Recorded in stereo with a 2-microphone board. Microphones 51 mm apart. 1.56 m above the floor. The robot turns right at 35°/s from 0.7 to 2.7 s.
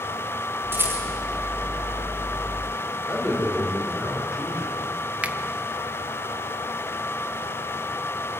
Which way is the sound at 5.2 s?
25° right (ahead or behind).